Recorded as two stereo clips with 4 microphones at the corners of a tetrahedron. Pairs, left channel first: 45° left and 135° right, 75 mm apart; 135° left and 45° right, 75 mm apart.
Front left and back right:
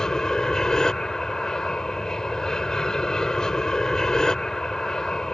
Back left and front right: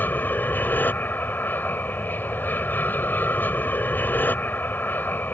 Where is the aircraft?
115° left.